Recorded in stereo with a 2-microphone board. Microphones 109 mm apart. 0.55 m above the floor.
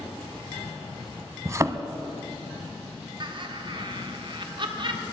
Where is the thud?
30° right (ahead or behind), 0.5 m.